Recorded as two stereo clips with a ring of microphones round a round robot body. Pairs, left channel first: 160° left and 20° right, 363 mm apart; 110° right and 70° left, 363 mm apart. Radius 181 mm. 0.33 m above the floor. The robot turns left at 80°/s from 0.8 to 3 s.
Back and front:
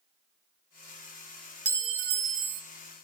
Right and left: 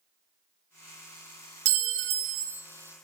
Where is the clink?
60° left, 0.5 m; by 2.6 s 15° right, 0.5 m.